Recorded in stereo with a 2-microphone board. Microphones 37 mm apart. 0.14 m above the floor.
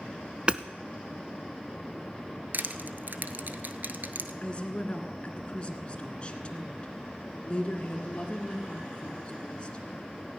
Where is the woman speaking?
30° left (ahead or behind), 1.7 m.